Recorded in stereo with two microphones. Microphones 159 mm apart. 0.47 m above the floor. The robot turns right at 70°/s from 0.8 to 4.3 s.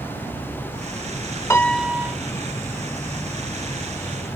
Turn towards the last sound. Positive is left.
turn(degrees=-5)